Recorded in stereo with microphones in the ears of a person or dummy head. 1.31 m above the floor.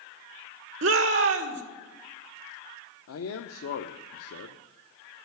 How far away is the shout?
About 1.6 m.